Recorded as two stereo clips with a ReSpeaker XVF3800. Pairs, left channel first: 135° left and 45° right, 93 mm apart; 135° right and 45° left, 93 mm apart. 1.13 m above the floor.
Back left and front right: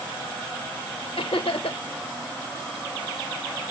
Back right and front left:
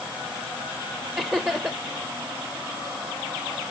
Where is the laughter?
120° left, 0.8 m.